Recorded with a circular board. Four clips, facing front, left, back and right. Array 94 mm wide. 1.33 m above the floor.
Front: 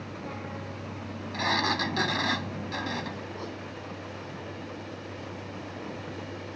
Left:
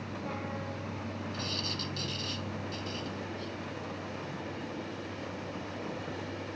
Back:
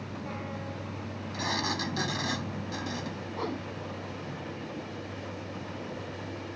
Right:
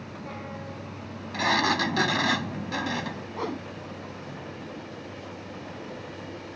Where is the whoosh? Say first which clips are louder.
Right 8 dB, back 4 dB; 110° right.